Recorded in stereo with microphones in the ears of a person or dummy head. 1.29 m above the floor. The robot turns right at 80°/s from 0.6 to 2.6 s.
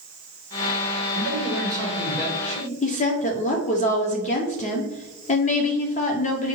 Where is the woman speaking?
35° left (ahead or behind), 0.6 m.